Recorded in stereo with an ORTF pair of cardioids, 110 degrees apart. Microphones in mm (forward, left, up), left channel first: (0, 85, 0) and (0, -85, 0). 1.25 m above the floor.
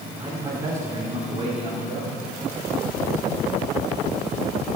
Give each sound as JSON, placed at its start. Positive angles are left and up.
{"t": 0.2, "sound": "a man speaking", "azimuth_deg": -15, "distance_m": 3.5}